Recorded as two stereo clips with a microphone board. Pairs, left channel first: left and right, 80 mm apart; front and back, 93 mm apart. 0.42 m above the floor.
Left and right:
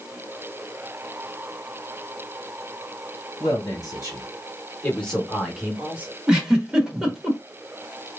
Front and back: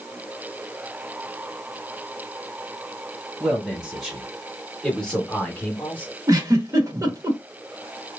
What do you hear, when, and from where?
3.4 s a man speaking: 95° left, 1.5 m; by 6.1 s 50° right, 1.1 m
6.3 s a giggle: 165° right, 1.0 m